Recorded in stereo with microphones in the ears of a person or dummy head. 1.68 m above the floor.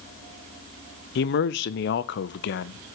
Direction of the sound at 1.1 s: 60° left (ahead or behind).